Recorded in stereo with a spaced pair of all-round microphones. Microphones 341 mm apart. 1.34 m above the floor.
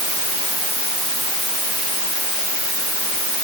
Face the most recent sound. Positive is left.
No sound to turn to.